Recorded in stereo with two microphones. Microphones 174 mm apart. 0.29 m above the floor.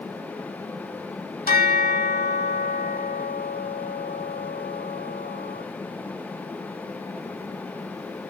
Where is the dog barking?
No dog barking in this recording.